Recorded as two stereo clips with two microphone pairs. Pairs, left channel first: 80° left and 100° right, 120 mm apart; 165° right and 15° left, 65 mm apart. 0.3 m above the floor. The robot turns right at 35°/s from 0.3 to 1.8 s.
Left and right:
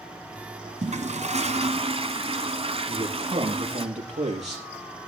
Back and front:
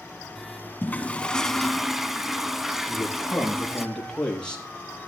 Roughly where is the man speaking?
Right.